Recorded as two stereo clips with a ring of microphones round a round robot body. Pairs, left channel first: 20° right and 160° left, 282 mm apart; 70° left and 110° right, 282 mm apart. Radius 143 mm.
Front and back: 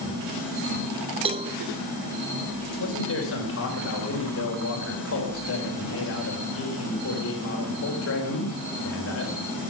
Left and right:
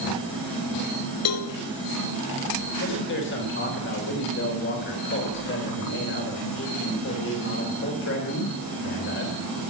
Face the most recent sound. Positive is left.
turn(degrees=20)